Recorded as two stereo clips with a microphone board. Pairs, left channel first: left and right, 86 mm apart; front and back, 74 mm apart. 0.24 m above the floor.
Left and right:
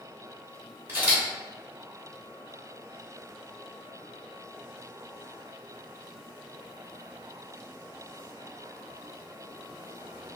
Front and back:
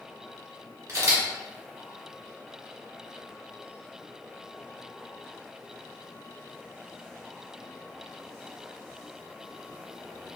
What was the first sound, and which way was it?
A camera shutter, 150° right.